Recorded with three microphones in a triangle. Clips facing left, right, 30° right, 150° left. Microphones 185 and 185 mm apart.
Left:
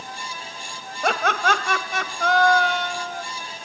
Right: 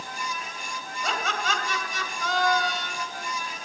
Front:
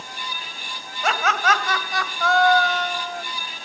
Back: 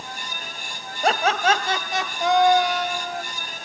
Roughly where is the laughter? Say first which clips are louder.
Left 8 dB, back 2 dB; left.